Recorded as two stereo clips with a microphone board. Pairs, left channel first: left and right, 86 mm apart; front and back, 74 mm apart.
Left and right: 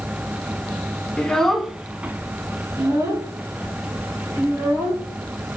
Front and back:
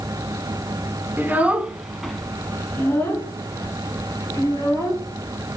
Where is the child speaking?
160° left, 0.9 m; by 5.6 s 45° right, 2.5 m.